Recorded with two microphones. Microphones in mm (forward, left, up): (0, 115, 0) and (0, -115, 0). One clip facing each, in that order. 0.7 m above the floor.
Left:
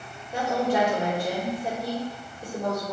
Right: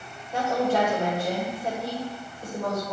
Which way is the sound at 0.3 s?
15° left (ahead or behind).